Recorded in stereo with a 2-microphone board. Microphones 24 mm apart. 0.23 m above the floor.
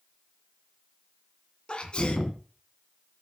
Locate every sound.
1.7 s a sneeze: 45° left (ahead or behind), 2 m